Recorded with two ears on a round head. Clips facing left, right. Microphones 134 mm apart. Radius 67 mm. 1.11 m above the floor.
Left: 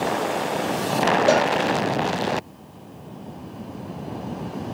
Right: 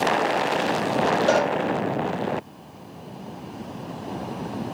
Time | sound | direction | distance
1.3 | a cowbell | 15° left (ahead or behind) | 5 m